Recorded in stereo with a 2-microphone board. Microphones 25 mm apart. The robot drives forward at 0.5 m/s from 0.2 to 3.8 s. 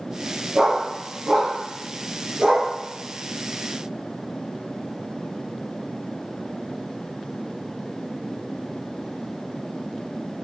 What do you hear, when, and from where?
0.6 s a dog barking: 30° right (ahead or behind), 4 m; by 2.7 s 40° right (ahead or behind), 3 m